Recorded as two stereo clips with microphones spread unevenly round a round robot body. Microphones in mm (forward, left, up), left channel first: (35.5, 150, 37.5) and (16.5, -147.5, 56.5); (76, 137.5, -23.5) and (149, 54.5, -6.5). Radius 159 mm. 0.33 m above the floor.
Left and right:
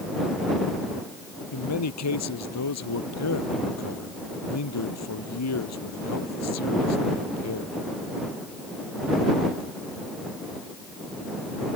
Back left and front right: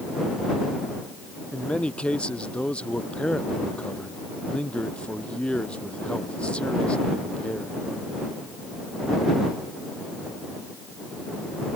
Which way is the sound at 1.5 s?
50° left.